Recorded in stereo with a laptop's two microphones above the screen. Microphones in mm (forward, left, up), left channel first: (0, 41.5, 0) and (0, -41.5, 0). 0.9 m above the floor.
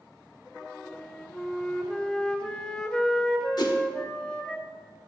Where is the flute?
10° left (ahead or behind), 0.6 m.